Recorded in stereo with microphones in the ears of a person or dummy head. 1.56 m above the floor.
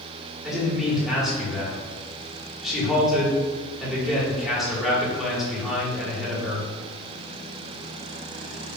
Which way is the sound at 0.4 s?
5° right (ahead or behind).